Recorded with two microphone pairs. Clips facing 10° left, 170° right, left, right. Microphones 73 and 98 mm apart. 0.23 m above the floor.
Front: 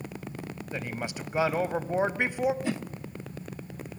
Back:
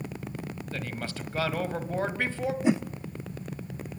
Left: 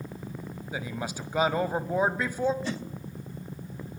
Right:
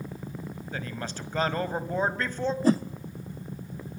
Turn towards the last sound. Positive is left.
turn(degrees=-110)